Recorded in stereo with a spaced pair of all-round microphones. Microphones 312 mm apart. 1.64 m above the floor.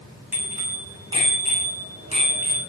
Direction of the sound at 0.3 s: 5° right (ahead or behind).